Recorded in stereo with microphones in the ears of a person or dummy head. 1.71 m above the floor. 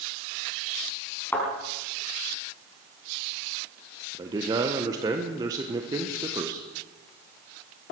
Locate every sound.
1.3 s a thud: 10° left (ahead or behind), 4.5 m
4.1 s a man speaking: 25° right (ahead or behind), 1.2 m